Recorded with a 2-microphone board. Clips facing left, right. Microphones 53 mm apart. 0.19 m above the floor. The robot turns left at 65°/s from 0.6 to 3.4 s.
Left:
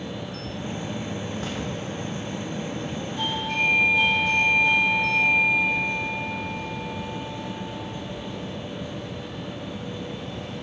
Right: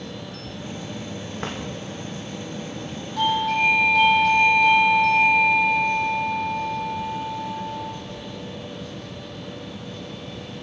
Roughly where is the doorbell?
Right.